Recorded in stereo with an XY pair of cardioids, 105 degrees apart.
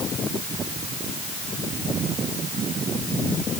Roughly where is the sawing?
I don't hear sawing.